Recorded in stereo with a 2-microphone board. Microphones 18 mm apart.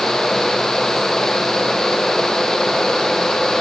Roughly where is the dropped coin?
No dropped coin in this recording.